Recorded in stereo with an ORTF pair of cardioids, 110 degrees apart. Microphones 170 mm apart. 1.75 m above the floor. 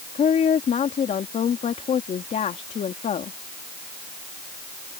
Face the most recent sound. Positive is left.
turn(degrees=45)